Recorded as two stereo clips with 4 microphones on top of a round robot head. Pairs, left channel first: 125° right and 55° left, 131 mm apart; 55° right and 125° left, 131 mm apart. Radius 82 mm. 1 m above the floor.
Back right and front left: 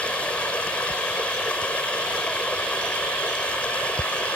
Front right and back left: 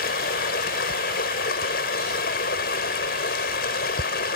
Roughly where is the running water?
Ahead right.